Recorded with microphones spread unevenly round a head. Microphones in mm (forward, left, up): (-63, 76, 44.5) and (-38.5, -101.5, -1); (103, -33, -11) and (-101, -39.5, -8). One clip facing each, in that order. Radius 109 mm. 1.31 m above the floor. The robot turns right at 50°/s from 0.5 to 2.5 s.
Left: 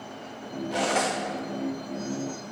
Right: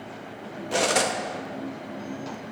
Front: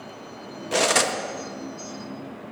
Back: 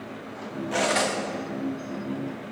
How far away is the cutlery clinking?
About 1.0 m.